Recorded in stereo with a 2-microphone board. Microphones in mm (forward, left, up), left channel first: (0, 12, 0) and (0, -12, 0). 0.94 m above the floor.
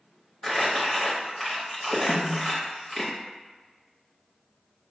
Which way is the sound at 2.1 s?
70° left (ahead or behind).